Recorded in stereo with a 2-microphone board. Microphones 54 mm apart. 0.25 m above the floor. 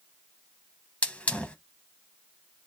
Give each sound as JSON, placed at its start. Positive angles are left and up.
{"t": 1.0, "sound": "a hiss", "side_deg": 25, "distance_m": 0.5}